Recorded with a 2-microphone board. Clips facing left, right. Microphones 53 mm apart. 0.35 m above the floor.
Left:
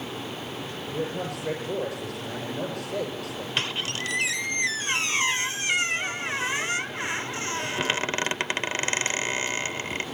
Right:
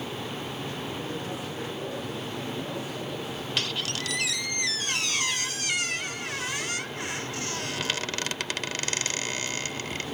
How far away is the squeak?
About 0.8 m.